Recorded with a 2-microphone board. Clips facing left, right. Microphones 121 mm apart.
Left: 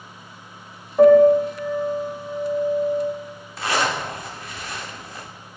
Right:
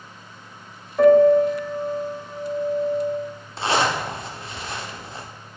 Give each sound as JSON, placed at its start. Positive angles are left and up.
{"t": 1.0, "sound": "a piano", "side_deg": 15, "distance_m": 1.5}
{"t": 3.6, "sound": "a zipper", "side_deg": -25, "distance_m": 0.7}